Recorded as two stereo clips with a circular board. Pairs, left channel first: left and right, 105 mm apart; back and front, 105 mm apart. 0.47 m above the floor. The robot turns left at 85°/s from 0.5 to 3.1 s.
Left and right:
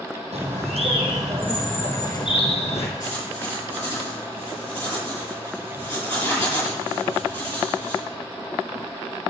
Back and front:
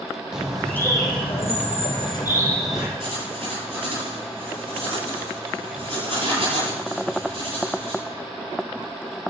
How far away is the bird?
About 3.5 m.